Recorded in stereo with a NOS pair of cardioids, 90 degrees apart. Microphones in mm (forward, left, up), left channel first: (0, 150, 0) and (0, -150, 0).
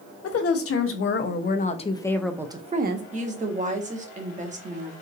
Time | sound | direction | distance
0.2 | a woman speaking | 50° left | 1.3 m
3.1 | a woman speaking | 25° right | 1.2 m